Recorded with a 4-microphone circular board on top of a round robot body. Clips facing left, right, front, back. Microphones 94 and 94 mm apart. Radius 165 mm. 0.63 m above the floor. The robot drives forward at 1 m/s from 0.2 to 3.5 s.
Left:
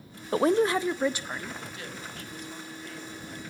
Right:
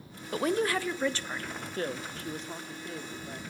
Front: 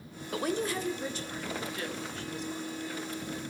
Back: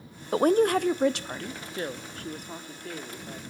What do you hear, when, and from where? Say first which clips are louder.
0.3 s a woman speaking: left 5 dB, back 10 dB; 130° left, 0.6 m; by 1.6 s 170° left, 1.7 m
1.7 s a woman speaking: right 6 dB, back 2 dB; 125° right, 1.3 m; by 3.4 s 160° right, 2.5 m